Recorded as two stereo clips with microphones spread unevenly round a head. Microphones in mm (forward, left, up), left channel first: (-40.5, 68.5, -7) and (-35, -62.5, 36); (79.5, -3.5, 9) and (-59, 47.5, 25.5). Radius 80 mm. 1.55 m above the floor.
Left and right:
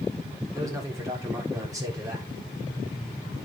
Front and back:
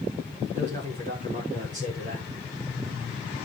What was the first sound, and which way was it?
A man speaking, 155° right.